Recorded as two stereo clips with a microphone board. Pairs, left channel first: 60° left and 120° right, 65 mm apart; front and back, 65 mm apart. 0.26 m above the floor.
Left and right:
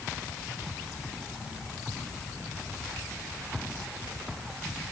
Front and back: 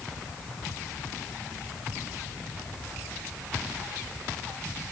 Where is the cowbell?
No cowbell in this recording.